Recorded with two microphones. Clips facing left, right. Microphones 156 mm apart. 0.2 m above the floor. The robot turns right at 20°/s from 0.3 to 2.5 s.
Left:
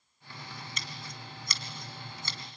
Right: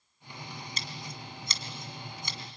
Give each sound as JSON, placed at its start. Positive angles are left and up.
{"t": 0.8, "sound": "scissors", "side_deg": -35, "distance_m": 1.8}